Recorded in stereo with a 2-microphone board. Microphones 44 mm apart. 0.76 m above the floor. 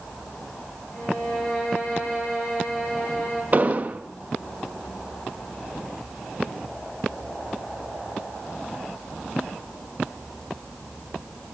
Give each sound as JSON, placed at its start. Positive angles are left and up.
{"t": 0.9, "sound": "a violin", "side_deg": 30, "distance_m": 10.0}
{"t": 3.5, "sound": "an explosion", "side_deg": -35, "distance_m": 0.8}